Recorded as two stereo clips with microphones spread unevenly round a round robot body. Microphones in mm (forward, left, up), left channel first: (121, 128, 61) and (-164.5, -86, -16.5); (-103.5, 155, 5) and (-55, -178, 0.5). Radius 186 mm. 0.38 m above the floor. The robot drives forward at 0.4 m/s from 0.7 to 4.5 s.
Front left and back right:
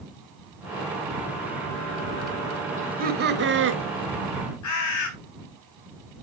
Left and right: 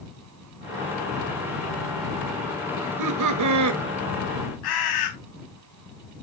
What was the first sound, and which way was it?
Laughter, 85° right.